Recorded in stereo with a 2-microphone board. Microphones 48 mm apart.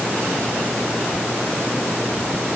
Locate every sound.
Only background noise.